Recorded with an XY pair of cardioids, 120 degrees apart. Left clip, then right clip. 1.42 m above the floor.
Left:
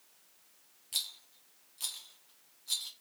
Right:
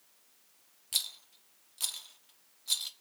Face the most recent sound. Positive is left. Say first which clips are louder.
# right 3 dB
turn(degrees=-35)